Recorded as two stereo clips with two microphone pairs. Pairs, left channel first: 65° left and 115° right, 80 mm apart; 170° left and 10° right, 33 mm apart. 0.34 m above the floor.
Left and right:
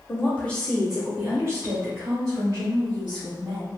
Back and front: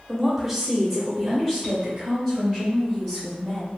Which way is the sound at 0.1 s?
65° left.